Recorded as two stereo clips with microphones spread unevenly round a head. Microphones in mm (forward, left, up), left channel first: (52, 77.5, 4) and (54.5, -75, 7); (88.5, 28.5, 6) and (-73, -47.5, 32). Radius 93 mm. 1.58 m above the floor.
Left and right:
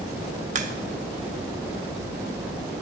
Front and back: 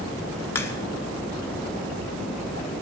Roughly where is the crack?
Ahead right.